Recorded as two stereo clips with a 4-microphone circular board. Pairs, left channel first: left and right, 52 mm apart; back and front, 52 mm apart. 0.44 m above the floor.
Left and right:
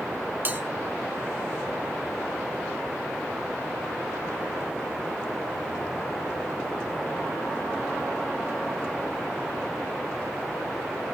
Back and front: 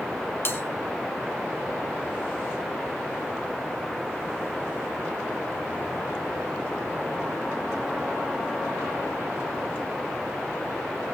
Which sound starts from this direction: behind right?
A bell, at 0.5 s.